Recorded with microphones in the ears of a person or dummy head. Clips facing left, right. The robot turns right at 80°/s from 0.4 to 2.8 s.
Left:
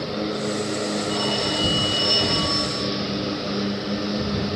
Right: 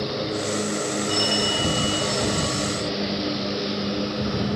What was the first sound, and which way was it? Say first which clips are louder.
A phone ringing: even; 40° right.